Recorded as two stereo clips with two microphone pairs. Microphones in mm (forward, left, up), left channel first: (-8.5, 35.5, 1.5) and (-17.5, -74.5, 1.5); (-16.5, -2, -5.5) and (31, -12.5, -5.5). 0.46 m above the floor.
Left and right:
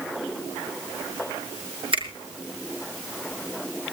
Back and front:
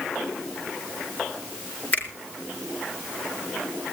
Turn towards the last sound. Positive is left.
turn(degrees=-130)